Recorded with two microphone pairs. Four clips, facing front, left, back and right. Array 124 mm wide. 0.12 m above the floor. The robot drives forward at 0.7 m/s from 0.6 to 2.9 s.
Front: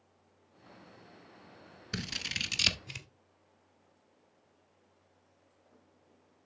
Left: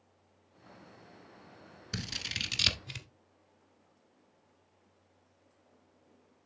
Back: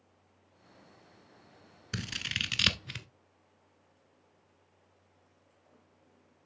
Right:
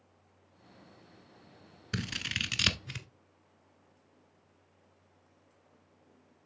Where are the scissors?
85° right, 1.0 m; by 3.1 s 150° right, 1.2 m.